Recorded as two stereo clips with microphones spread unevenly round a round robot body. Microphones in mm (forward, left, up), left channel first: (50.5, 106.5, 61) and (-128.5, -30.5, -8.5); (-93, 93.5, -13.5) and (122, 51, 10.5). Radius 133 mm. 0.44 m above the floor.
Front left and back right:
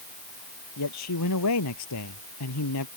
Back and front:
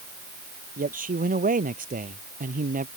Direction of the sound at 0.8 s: 40° left.